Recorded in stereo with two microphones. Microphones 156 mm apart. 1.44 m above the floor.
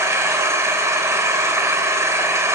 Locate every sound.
0.0 s an engine running: 20° right (ahead or behind), 1.6 m